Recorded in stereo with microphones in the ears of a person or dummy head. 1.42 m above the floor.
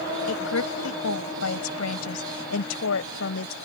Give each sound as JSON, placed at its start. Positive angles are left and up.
{"t": 0.3, "sound": "a woman speaking", "side_deg": 85}